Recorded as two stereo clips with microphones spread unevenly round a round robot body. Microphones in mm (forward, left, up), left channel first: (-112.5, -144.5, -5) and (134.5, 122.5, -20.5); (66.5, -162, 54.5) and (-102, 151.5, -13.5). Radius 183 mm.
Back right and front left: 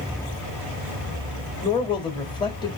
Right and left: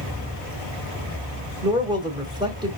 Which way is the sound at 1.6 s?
155° left.